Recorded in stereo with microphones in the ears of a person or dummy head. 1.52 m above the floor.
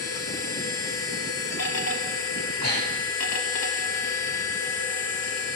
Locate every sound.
0.0 s a machine running: 55° left (ahead or behind), 0.9 m
2.6 s breathing: 80° left, 2 m